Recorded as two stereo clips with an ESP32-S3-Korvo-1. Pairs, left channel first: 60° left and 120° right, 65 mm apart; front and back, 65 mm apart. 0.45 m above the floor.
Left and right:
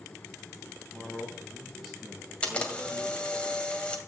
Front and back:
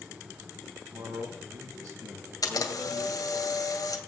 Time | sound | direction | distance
0.9 | a man speaking | 155° left | 4 m
2.4 | a camera shutter | 10° right | 2.0 m